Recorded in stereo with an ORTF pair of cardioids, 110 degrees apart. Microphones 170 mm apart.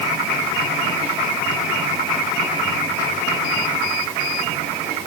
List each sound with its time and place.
Only background noise.